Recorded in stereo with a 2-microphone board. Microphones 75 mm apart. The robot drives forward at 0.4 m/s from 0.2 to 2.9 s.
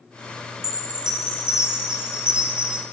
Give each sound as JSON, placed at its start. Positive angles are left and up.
{"t": 0.6, "sound": "a chime", "side_deg": -10, "distance_m": 2.5}